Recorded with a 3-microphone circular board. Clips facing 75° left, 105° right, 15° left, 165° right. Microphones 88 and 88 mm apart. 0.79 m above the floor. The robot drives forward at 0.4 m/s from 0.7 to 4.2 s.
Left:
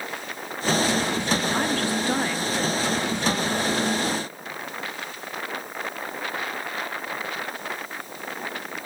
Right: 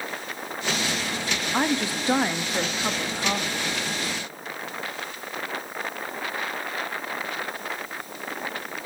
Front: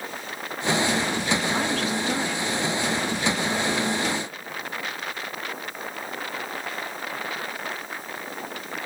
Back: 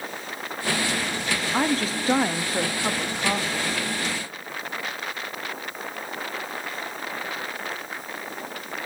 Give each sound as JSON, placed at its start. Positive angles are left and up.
{"t": 1.5, "sound": "a woman speaking", "azimuth_deg": -150, "distance_m": 0.8}